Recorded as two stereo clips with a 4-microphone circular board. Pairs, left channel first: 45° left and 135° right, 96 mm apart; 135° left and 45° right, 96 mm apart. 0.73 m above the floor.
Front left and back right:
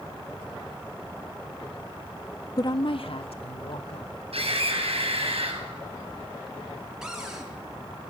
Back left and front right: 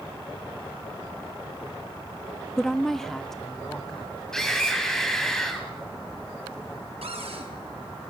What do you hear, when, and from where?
2.6 s a woman speaking: 50° left, 0.6 m
4.3 s a scream: 140° right, 6 m
7.0 s a cupboard door: 50° right, 5 m